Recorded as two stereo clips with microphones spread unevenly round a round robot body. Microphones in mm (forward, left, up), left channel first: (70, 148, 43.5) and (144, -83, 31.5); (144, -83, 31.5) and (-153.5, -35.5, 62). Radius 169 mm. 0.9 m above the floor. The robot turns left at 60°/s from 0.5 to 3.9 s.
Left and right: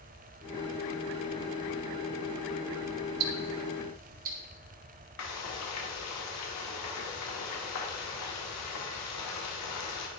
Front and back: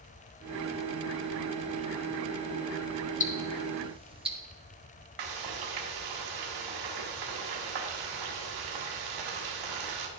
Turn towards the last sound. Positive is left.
turn(degrees=150)